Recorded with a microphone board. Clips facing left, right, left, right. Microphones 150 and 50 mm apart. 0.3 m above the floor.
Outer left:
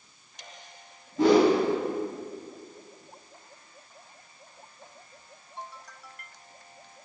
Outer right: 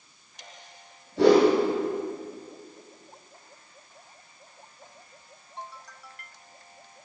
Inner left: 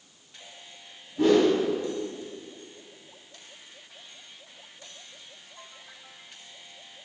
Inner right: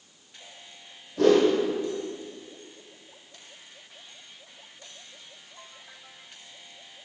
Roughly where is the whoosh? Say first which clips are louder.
Outer right 2 dB, inner right 1 dB; right.